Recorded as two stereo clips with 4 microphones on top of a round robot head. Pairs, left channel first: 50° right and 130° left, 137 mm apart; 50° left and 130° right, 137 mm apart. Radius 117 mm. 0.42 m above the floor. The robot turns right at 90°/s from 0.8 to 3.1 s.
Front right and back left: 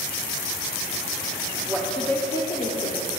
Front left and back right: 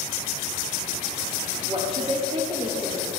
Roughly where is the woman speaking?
Behind.